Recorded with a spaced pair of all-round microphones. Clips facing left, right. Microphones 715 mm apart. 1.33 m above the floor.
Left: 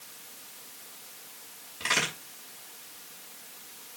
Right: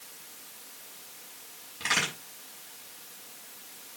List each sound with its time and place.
1.8 s a crack: 5° left (ahead or behind), 6 m